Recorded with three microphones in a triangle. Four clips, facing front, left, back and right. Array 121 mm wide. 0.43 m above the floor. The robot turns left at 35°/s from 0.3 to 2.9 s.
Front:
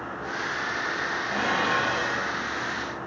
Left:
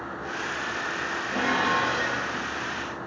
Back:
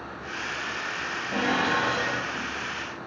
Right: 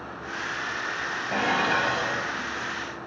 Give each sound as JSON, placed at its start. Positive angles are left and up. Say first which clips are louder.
{"t": 1.3, "sound": "dishes clattering", "louder": "even, back 1 dB", "azimuth_deg": -80, "distance_m": 1.9}